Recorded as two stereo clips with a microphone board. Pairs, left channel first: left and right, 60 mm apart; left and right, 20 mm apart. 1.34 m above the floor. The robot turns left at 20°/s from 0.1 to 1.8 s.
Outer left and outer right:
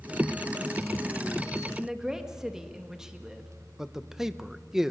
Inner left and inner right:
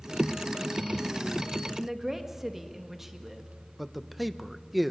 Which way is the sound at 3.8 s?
5° right (ahead or behind).